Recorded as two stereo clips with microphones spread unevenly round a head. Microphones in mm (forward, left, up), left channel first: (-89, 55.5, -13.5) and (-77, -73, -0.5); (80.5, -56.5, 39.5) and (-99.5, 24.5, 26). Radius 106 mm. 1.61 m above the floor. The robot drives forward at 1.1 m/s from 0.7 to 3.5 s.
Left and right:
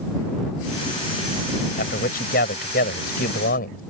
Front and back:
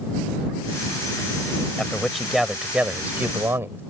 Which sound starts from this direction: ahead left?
A man speaking, at 1.8 s.